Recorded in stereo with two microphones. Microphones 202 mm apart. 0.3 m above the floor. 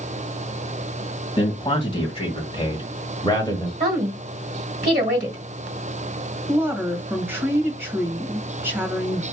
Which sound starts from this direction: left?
A man speaking, at 1.4 s.